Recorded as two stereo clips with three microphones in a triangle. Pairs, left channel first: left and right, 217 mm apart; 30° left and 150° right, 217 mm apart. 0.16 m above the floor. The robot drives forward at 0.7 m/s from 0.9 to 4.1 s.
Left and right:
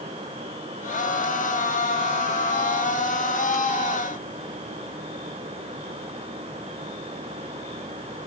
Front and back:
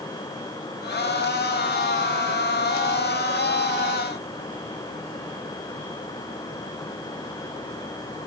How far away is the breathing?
No breathing in this recording.